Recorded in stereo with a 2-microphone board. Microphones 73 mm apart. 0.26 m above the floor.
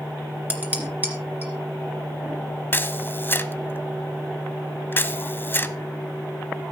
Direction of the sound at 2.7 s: 30° left (ahead or behind).